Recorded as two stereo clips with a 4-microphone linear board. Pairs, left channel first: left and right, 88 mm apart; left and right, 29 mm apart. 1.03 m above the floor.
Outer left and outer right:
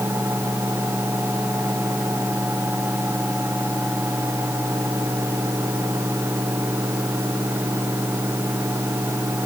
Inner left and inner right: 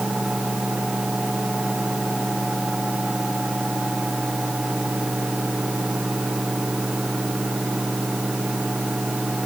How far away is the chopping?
No chopping in this recording.